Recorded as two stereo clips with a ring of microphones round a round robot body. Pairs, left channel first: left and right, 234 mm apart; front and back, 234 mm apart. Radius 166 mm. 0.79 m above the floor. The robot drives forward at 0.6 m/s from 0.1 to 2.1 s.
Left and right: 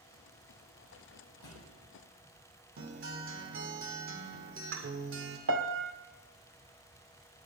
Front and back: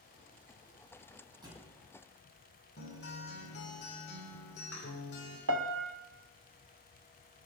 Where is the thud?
105° left, 8.5 m; by 1.8 s 110° left, 8.5 m.